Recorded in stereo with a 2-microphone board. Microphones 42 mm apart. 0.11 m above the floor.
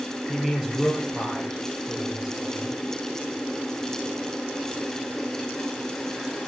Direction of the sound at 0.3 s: 5° right (ahead or behind).